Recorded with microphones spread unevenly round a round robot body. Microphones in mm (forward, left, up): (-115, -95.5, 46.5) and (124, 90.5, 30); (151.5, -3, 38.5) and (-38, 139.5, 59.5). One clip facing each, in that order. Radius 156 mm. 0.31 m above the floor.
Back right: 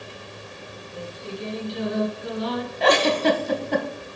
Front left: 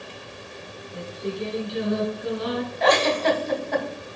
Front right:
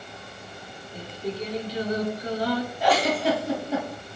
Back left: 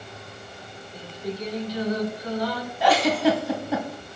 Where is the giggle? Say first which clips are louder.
Back right 2 dB, back left 5 dB; 165° left, 1.1 m.